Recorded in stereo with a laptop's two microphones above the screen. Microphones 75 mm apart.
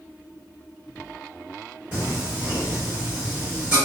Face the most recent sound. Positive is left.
turn(degrees=-25)  # may be behind; listen again after turning